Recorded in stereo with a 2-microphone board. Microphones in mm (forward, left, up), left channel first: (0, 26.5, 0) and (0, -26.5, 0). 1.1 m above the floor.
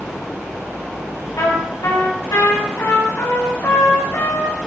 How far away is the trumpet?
About 3 m.